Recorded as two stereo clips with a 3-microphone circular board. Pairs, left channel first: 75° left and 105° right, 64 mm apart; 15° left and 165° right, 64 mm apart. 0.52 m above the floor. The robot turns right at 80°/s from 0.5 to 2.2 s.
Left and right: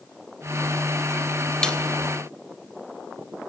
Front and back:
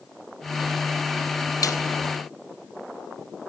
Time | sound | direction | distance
1.6 | a snare drum | 5° right | 3 m